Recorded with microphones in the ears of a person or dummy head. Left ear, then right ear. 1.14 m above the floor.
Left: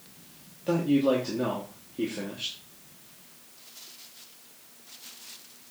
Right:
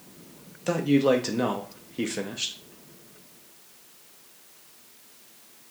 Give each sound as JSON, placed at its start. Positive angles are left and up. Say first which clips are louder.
{"t": 0.7, "sound": "a man speaking", "louder": "right 2 dB", "side_deg": -55, "distance_m": 0.6}